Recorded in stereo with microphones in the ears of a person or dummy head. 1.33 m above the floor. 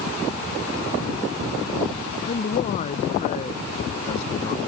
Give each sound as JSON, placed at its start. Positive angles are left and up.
{"t": 2.2, "sound": "a man speaking", "side_deg": 45}